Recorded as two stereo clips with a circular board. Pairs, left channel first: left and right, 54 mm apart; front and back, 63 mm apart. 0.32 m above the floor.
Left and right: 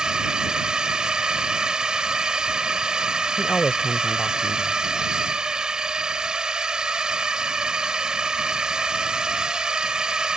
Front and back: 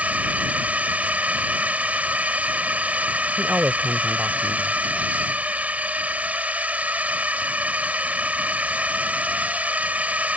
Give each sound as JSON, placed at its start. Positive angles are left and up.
{"t": 0.0, "sound": "a drone", "azimuth_deg": -145}
{"t": 3.4, "sound": "a man speaking", "azimuth_deg": 150}